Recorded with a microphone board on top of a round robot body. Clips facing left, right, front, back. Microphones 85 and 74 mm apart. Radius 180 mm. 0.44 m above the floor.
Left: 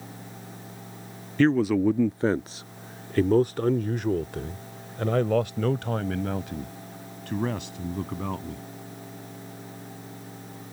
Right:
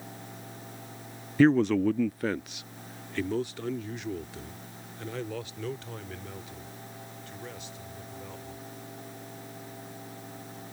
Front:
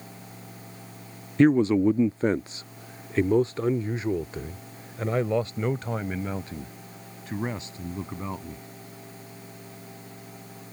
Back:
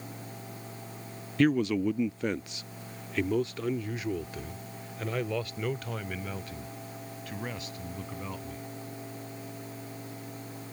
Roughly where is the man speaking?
Ahead.